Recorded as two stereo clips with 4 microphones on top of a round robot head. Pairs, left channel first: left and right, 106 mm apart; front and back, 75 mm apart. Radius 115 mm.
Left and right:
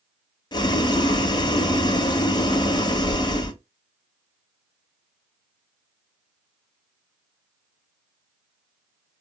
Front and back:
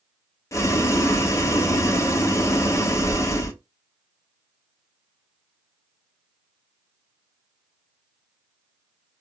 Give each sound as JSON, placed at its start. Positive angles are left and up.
{"t": 0.5, "sound": "boiling", "azimuth_deg": 50, "distance_m": 0.8}